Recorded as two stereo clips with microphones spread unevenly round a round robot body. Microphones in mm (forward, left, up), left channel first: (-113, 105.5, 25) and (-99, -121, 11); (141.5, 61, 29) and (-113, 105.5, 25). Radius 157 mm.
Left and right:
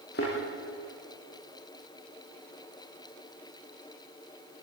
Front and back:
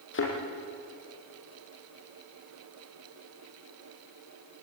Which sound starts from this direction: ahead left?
A thud, at 0.1 s.